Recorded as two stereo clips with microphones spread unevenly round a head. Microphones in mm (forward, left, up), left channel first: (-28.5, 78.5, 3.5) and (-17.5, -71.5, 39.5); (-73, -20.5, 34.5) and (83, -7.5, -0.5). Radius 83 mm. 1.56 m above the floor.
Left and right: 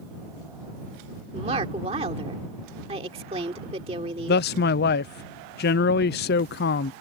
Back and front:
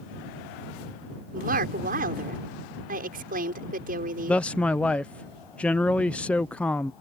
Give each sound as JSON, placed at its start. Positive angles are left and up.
{"t": 1.3, "sound": "a woman speaking", "azimuth_deg": -30}
{"t": 4.3, "sound": "a man speaking", "azimuth_deg": 100}